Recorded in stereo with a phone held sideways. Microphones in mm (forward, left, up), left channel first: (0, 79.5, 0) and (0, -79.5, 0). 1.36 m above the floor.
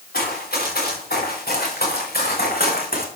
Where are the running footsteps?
70° left (ahead or behind), 6.5 m.